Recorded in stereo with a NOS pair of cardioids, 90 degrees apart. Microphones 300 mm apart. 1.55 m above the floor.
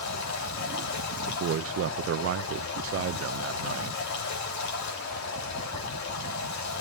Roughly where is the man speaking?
Ahead right.